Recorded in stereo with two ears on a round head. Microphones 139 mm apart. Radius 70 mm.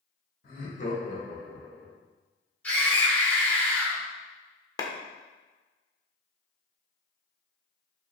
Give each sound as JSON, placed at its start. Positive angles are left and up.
{"t": 0.4, "sound": "laughter", "side_deg": 60, "distance_m": 1.7}
{"t": 2.6, "sound": "a scream", "side_deg": 10, "distance_m": 1.5}
{"t": 4.8, "sound": "a clap", "side_deg": 20, "distance_m": 0.6}